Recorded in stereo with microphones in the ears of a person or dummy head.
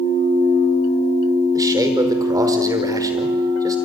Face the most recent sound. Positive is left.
turn(degrees=-20)  # may be behind; listen again after turning